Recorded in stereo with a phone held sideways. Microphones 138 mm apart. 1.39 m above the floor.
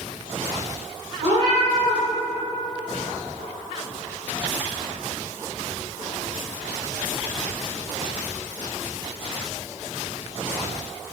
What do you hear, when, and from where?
1.2 s a cat meowing: 45° right (ahead or behind), 0.9 m